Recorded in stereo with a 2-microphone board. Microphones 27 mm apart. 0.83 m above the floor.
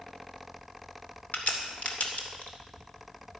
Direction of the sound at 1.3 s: 75° left (ahead or behind).